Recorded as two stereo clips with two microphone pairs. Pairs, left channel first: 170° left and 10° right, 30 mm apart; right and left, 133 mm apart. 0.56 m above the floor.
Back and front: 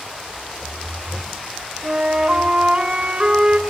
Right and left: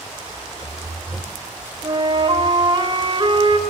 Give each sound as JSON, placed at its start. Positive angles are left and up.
{"t": 1.8, "sound": "a flute", "azimuth_deg": 40, "distance_m": 2.5}